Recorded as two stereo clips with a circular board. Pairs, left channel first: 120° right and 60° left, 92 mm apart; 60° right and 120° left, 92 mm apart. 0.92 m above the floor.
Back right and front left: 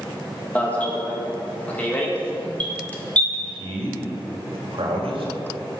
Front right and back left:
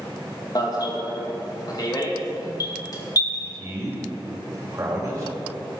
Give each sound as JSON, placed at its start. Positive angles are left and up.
{"t": 0.6, "sound": "an alarm", "azimuth_deg": -50, "distance_m": 2.0}
{"t": 3.3, "sound": "a man speaking", "azimuth_deg": 60, "distance_m": 4.0}